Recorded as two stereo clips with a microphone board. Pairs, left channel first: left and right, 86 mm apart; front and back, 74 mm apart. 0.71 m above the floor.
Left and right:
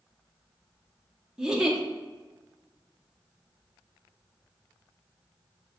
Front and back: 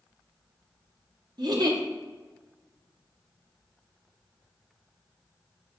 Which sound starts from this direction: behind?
A giggle, at 1.4 s.